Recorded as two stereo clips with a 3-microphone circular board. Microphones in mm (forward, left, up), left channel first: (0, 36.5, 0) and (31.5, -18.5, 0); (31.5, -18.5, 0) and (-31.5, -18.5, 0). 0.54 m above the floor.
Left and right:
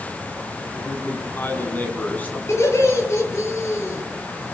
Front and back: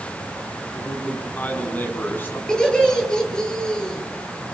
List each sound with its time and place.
0.7 s a man speaking: 70° left, 6 m; by 2.4 s 55° left, 6.5 m
2.5 s laughter: 80° left, 10 m